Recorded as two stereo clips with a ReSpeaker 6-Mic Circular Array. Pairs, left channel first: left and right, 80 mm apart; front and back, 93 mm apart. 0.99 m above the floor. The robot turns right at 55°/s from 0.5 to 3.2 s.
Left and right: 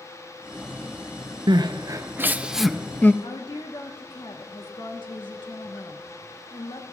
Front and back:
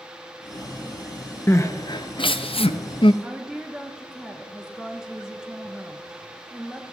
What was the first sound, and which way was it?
Crying, 65° right.